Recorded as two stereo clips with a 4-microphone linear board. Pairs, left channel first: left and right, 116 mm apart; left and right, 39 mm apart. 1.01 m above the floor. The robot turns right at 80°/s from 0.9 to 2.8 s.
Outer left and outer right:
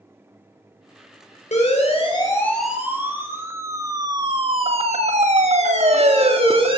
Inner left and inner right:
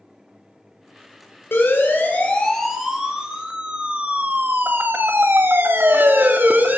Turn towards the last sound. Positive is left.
turn(degrees=-50)  # may be behind; listen again after turning